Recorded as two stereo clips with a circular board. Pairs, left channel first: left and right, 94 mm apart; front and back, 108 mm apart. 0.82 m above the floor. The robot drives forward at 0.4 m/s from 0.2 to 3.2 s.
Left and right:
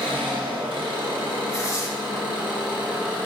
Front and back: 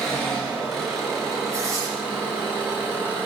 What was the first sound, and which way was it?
An engine running, 85° right.